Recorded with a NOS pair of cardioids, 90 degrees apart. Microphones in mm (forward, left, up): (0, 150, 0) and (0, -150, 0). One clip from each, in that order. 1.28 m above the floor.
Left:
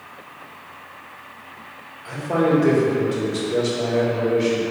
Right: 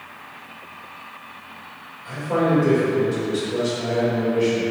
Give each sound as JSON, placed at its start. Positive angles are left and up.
{"t": 2.0, "sound": "a man speaking", "azimuth_deg": 25, "distance_m": 1.9}